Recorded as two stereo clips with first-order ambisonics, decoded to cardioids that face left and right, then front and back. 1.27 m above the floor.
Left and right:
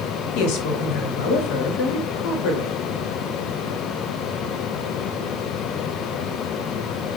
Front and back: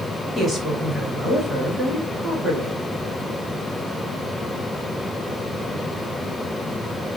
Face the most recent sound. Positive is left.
turn(degrees=95)